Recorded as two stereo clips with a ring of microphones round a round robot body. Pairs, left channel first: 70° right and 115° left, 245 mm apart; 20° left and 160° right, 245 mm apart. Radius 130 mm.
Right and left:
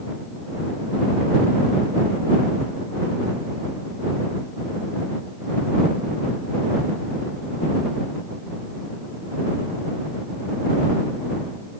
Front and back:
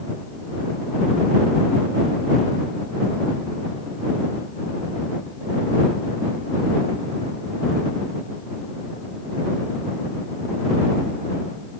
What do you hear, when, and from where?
Only background noise.